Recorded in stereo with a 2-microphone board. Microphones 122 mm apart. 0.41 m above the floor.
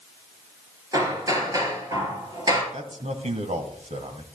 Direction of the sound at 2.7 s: 70° right (ahead or behind).